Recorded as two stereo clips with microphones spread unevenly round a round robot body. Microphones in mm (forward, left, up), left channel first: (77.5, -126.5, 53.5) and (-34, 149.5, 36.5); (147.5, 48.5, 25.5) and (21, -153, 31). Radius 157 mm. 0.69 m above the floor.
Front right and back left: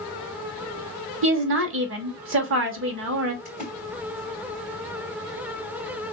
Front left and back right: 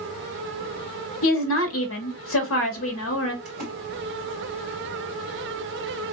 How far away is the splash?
About 1.8 m.